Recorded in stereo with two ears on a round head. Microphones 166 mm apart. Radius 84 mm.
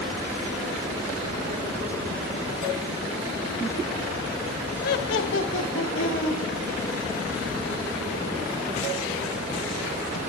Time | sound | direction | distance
4.8 | laughter | 45° left (ahead or behind) | 0.7 m